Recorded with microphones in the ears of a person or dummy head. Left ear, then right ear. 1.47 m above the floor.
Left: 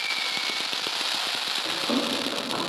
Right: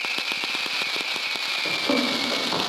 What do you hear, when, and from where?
1.6 s running footsteps: 50° right (ahead or behind), 2.5 m